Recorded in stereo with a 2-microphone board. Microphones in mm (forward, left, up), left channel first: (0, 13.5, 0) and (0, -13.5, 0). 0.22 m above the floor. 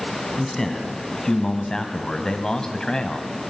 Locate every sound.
0.4 s a man speaking: 15° left (ahead or behind), 1.9 m; by 3.3 s 25° left (ahead or behind), 1.5 m